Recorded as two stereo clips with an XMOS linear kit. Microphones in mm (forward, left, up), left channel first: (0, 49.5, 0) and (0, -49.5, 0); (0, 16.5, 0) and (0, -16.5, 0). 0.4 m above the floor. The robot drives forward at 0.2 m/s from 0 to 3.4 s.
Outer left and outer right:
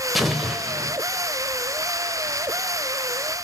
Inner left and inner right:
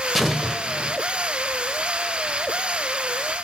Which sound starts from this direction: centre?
An explosion, at 0.1 s.